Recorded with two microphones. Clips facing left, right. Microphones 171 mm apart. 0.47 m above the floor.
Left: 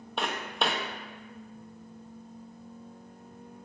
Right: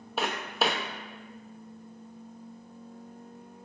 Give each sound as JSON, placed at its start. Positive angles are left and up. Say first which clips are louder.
{"t": 0.2, "sound": "footsteps", "louder": "right 2 dB", "side_deg": -5, "distance_m": 0.6}